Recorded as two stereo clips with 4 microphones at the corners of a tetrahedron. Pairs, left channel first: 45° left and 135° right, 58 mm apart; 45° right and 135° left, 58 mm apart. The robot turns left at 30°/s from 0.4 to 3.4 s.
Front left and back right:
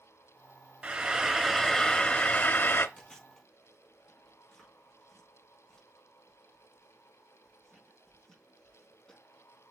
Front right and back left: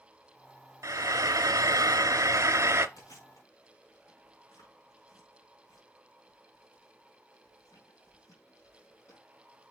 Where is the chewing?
25° right, 4.5 m; by 9.2 s 40° right, 4.5 m.